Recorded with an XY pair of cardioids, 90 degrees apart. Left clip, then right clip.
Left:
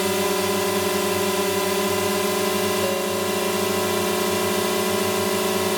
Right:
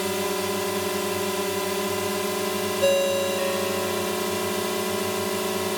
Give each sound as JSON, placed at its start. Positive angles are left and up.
{"t": 0.0, "sound": "a drone", "azimuth_deg": 35}
{"t": 2.8, "sound": "a ringtone", "azimuth_deg": -65}